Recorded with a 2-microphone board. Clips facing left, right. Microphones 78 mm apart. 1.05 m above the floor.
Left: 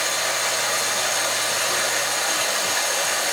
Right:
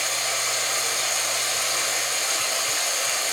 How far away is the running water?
About 5.5 m.